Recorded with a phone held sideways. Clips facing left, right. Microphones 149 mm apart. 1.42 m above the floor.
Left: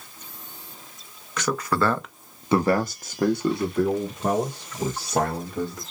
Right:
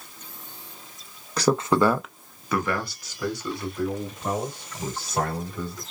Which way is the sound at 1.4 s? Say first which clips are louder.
Right 4 dB; 35° right (ahead or behind).